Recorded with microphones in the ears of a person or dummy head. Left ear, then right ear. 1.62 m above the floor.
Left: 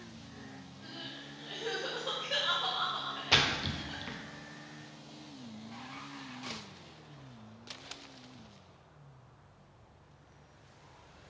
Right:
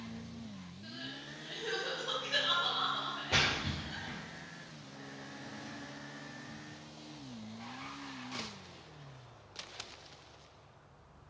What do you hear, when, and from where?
0.8 s crying: 30° left (ahead or behind), 1.0 m
3.3 s a splash: 45° left (ahead or behind), 0.6 m